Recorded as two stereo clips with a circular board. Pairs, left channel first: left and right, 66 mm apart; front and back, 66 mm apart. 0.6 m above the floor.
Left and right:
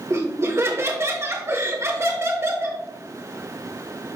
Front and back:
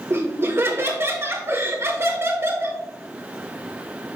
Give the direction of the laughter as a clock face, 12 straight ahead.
4 o'clock.